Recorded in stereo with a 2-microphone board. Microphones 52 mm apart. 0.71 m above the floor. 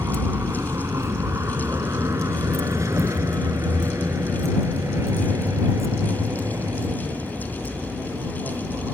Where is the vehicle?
75° right (ahead or behind).